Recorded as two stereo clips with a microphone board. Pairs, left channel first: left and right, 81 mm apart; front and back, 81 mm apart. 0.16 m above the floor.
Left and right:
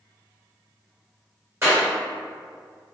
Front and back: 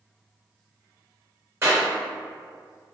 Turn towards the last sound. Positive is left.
turn(degrees=-140)